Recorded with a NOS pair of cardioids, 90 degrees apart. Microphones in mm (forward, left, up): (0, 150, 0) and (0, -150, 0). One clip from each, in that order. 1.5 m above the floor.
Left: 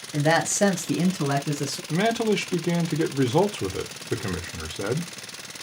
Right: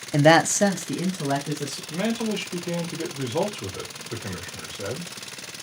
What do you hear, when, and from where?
0.1 s a man speaking: 50° right, 0.8 m; by 1.8 s 55° left, 1.9 m
1.9 s a man speaking: 65° left, 1.0 m